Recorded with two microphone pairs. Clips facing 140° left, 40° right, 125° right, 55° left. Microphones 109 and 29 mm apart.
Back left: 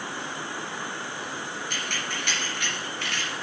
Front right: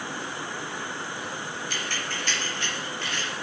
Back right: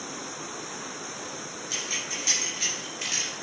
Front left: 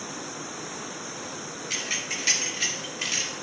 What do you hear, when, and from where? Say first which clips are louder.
1.7 s keys jangling: even, front left 2 dB; 100° left, 3.5 m; by 3.3 s 130° left, 4 m